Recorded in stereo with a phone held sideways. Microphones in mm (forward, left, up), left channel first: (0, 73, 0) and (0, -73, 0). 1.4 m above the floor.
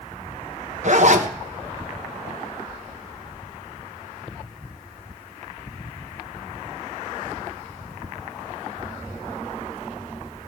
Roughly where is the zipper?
Right.